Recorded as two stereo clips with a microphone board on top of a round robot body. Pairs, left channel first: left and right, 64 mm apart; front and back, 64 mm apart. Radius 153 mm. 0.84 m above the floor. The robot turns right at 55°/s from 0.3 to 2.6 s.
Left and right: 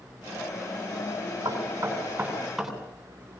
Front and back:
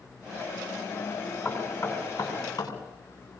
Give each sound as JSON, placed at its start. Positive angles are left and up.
{"t": 1.4, "sound": "knocking", "azimuth_deg": -70, "distance_m": 8.0}